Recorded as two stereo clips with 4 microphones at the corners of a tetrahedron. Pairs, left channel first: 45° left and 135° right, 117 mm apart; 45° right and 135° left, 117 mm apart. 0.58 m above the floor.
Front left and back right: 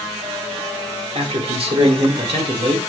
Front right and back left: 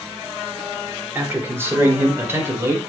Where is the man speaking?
155° right, 1.9 m; by 2.9 s 160° right, 3 m.